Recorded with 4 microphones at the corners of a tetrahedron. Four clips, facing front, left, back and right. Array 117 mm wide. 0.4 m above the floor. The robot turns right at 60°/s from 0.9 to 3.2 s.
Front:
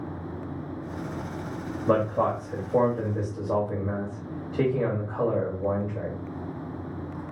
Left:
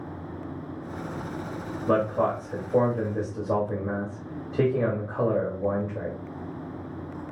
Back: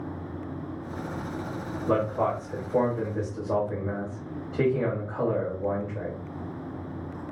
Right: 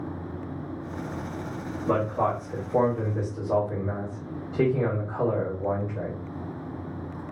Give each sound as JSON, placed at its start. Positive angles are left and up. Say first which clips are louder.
{"t": 1.9, "sound": "a man speaking", "louder": "left 1 dB, front 2 dB", "azimuth_deg": 10, "distance_m": 1.4}